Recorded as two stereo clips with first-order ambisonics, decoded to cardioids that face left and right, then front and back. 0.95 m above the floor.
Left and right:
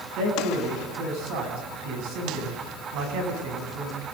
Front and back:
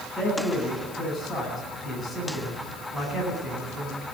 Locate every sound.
0.2 s a man speaking: 95° right, 10 m